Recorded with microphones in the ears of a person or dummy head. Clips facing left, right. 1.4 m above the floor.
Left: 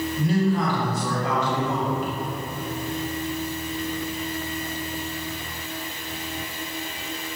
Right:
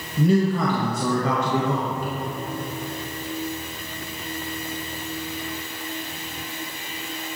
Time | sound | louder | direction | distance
0.2 | a man speaking | right 4 dB | 65° right (ahead or behind) | 0.5 m